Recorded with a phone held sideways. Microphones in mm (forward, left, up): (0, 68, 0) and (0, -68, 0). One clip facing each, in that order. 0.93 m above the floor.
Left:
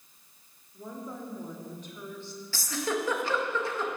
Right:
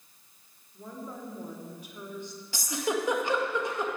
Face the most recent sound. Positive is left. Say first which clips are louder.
# right 1 dB
turn(degrees=-20)  # may be behind; listen again after turning